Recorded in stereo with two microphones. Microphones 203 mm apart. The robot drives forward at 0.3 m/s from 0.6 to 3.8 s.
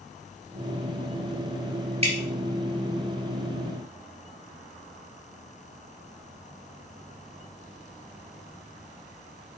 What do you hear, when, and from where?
2.0 s dripping: 30° right (ahead or behind), 1.5 m